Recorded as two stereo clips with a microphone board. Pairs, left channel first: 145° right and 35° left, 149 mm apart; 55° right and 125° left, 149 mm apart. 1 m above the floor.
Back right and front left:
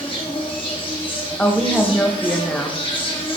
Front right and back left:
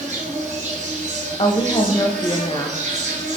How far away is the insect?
About 1.0 m.